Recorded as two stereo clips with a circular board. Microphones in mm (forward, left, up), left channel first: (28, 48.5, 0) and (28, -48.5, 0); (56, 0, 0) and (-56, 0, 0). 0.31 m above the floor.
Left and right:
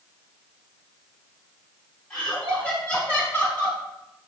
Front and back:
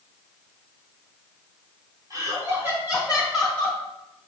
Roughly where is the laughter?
Behind.